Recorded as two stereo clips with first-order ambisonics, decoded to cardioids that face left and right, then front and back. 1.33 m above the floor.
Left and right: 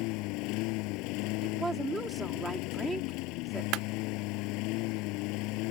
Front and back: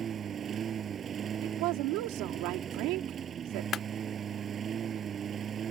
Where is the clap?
60° right.